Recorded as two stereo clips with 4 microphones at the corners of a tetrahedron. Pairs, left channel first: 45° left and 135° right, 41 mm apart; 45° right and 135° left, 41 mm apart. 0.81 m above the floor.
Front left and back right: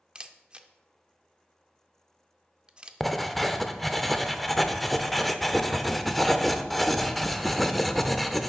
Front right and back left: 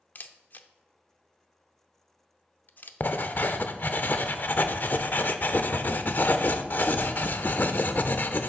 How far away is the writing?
About 0.5 m.